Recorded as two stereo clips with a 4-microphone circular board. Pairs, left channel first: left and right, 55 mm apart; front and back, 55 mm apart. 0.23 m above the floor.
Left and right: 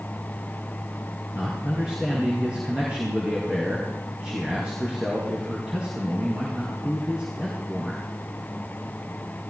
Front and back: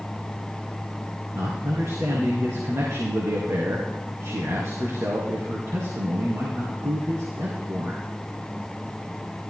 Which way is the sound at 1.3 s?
160° right.